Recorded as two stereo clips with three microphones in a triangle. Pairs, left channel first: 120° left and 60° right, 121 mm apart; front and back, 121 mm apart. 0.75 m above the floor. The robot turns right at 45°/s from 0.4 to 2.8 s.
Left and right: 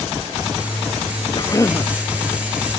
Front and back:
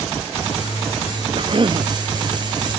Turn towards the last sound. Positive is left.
turn(degrees=-135)